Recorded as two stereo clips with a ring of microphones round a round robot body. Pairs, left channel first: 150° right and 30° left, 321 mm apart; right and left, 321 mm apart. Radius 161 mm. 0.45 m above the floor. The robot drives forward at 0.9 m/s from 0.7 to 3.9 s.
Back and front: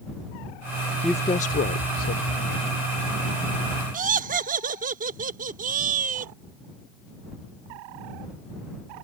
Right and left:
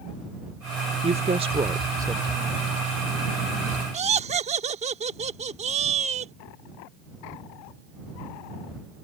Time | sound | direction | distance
1.0 | a woman speaking | 115° left | ?
3.9 | laughter | 50° left | ?